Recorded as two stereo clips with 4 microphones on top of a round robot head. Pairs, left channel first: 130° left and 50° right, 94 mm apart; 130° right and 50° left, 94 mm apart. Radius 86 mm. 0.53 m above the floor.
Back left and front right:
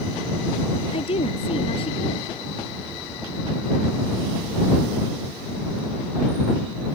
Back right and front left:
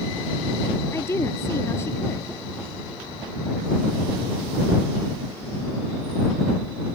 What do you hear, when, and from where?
0.9 s a woman speaking: 165° left